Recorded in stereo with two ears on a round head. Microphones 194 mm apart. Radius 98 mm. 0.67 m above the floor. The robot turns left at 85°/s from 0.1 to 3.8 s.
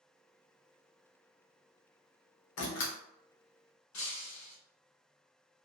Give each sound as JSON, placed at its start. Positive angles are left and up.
{"t": 2.6, "sound": "a door slam", "side_deg": 65, "distance_m": 0.8}
{"t": 3.9, "sound": "breaking glass", "side_deg": 65, "distance_m": 1.2}